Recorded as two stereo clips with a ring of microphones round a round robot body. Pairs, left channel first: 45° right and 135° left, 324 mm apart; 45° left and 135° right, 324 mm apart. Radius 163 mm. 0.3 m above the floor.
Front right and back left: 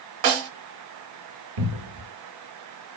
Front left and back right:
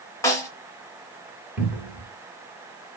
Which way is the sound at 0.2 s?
125° left.